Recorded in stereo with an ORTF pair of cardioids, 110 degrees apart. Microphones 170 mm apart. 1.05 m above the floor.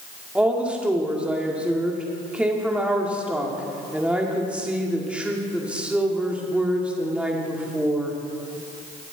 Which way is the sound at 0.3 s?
5° right.